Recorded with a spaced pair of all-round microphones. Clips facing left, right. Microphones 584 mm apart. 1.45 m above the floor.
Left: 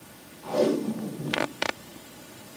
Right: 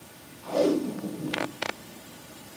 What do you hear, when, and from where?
0.4 s tape being pulled: 65° left (ahead or behind), 4 m